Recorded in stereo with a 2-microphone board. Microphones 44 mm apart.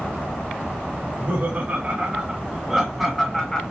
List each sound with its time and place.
1.0 s laughter: 45° right (ahead or behind), 2.5 m; by 3.6 s 10° left (ahead or behind), 1.8 m